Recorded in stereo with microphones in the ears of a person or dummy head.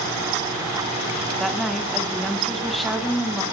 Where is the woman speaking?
Centre (ahead or behind), 0.9 m.